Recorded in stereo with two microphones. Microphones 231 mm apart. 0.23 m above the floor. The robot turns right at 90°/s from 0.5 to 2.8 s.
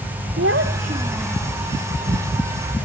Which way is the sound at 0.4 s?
70° right.